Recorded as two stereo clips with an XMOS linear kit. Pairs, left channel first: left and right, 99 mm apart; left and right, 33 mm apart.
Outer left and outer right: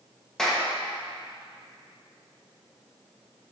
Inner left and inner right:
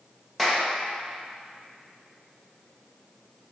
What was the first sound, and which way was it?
A clap, 5° left (ahead or behind).